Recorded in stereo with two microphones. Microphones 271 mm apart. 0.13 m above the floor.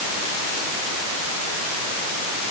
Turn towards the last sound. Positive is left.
No sound to turn to.